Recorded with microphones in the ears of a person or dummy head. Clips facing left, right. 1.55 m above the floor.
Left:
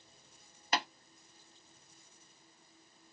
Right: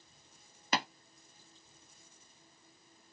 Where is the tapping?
65° right (ahead or behind), 0.7 m.